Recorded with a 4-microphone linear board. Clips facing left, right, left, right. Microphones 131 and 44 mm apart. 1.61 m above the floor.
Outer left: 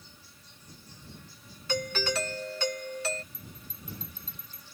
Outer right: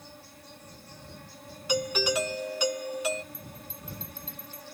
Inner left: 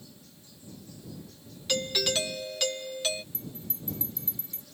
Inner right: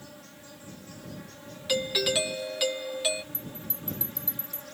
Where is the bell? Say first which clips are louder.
Outer right 4 dB, inner right 2 dB; 40° left (ahead or behind).